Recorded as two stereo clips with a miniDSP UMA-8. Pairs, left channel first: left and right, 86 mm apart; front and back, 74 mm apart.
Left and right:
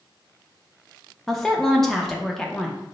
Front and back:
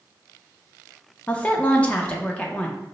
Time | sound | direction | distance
1.3 | a woman speaking | 10° left | 0.6 m